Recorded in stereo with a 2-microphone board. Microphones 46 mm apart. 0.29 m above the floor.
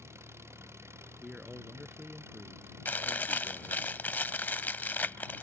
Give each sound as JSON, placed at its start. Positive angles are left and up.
{"t": 0.0, "sound": "an engine running", "side_deg": -70}
{"t": 1.2, "sound": "a man speaking", "side_deg": -15}
{"t": 2.9, "sound": "chewing", "side_deg": 45}